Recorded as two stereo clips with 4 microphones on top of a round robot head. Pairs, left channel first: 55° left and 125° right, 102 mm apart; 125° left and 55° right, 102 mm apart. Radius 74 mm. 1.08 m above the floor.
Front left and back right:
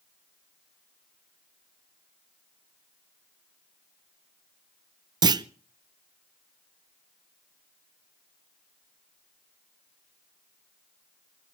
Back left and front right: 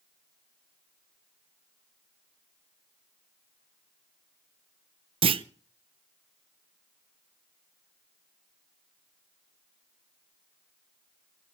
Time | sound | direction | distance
5.2 | a clunk | 80° right | 0.6 m